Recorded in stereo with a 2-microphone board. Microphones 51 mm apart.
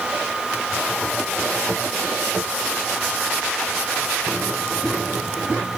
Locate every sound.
Only background noise.